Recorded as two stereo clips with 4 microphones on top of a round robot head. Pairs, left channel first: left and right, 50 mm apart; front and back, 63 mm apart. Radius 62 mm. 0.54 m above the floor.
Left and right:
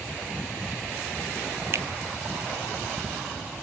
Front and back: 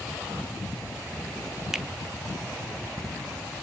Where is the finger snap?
100° right, 0.8 m.